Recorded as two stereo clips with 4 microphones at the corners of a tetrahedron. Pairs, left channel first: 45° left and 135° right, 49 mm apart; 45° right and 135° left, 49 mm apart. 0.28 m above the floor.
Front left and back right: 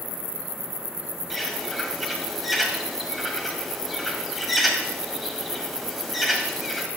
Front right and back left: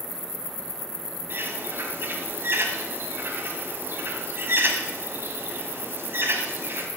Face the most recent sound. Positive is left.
turn(degrees=135)